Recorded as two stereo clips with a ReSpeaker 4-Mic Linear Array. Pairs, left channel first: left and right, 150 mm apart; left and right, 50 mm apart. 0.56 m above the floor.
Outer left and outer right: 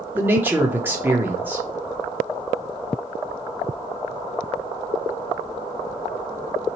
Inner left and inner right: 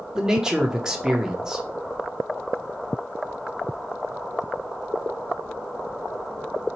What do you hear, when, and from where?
0.1 s a man speaking: 15° right (ahead or behind), 0.7 m